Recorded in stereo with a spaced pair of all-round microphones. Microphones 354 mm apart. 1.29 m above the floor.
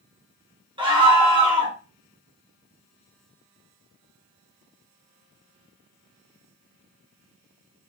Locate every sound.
0.8 s a scream: 15° right (ahead or behind), 1.2 m